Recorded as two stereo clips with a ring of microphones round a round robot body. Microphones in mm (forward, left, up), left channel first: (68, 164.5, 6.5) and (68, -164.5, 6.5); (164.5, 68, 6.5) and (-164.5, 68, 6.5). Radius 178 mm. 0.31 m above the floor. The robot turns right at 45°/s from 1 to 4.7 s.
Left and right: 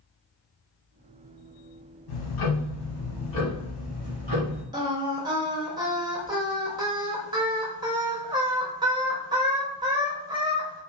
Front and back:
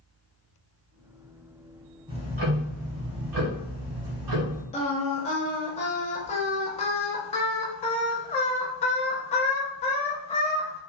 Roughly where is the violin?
I don't hear a violin.